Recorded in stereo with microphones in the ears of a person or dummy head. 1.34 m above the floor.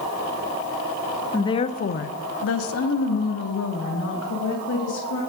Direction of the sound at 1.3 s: 10° left (ahead or behind).